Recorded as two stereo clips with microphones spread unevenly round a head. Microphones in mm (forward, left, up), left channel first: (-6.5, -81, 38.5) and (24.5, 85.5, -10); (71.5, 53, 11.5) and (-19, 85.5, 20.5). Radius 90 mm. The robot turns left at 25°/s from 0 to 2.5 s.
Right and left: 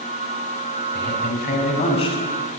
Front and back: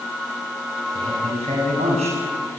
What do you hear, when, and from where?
0.9 s a man speaking: 135° right, 7 m; by 2.6 s 175° right, 7 m